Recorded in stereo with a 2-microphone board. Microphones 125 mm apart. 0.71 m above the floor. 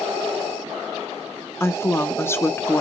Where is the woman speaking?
20° left (ahead or behind), 0.9 m.